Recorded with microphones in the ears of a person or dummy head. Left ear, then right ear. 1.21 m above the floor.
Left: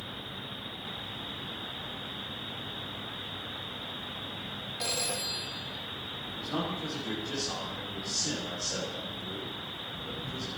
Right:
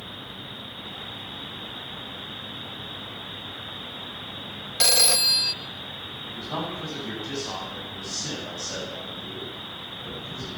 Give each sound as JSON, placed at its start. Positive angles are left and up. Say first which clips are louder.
{"t": 4.8, "sound": "a phone ringing", "louder": "right 14 dB", "side_deg": -65, "distance_m": 0.7}
{"t": 6.2, "sound": "a man speaking", "louder": "right 3 dB", "side_deg": -65, "distance_m": 7.5}